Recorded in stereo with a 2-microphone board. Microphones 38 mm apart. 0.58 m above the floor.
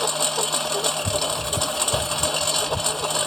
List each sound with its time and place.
0.0 s a lawn mower: 5° left (ahead or behind)